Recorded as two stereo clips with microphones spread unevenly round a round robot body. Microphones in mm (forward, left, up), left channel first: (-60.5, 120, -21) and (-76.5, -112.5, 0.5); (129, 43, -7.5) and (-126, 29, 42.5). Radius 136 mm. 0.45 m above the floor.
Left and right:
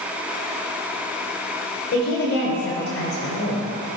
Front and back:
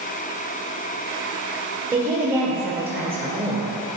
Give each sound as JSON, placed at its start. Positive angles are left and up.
{"t": 1.9, "sound": "a woman speaking", "azimuth_deg": 95, "distance_m": 1.8}